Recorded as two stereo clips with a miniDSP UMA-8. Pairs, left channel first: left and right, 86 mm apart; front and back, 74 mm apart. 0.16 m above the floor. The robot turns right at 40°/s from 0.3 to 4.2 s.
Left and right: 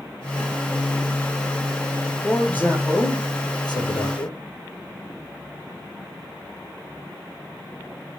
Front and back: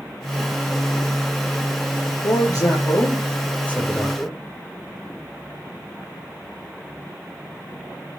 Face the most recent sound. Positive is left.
turn(degrees=90)